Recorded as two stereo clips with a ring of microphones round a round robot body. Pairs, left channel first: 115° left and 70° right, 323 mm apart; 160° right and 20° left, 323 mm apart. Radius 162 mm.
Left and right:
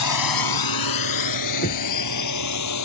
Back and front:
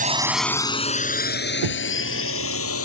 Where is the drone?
85° left; by 2.9 s 155° left.